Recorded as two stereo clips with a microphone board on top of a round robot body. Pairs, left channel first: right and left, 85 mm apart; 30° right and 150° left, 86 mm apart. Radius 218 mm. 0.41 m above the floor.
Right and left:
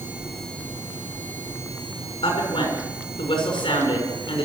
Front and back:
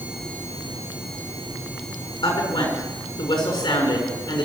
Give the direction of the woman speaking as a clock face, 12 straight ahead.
2 o'clock.